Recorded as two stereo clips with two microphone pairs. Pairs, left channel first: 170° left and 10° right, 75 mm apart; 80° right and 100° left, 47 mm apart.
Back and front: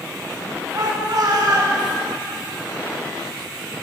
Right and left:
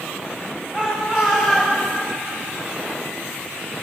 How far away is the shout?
About 2.5 m.